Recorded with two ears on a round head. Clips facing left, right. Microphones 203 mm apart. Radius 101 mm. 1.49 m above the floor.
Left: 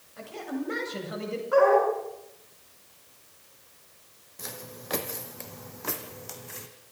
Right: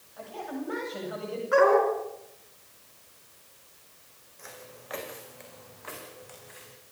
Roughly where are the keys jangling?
I don't hear keys jangling.